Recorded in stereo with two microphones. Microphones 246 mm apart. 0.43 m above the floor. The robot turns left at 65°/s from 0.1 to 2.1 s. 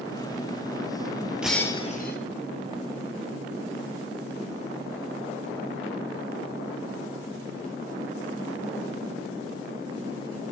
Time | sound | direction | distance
1.4 | breaking glass | 175° right | 2.0 m